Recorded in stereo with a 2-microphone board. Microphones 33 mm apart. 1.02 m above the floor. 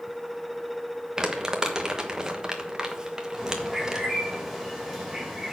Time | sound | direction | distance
1.2 | crumpling | 20° right (ahead or behind) | 1.2 m
3.4 | a bird | 5° right (ahead or behind) | 3 m